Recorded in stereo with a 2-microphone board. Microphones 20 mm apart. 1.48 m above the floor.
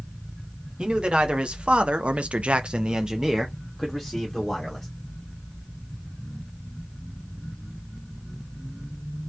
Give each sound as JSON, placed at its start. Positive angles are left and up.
{"t": 0.8, "sound": "a man speaking", "side_deg": -55, "distance_m": 1.2}